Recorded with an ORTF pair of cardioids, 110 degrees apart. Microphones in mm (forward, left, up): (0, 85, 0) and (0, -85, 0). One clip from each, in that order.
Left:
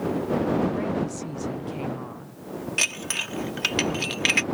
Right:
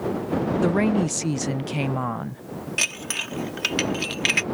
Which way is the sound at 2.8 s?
Straight ahead.